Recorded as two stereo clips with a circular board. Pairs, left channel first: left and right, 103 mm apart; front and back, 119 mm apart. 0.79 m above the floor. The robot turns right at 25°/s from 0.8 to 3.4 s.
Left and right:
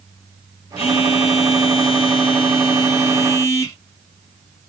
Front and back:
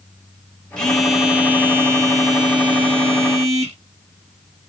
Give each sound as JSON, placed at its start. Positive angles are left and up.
{"t": 0.8, "sound": "a phone buzzing", "azimuth_deg": 85, "distance_m": 1.9}